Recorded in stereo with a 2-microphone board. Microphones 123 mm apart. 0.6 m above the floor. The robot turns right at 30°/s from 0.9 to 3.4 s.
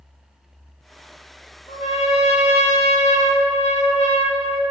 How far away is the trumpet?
About 1.7 m.